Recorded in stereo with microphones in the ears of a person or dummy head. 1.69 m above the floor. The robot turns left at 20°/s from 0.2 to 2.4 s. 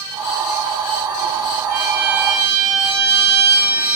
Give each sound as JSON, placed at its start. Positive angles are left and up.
{"t": 1.7, "sound": "a violin", "side_deg": -30, "distance_m": 1.6}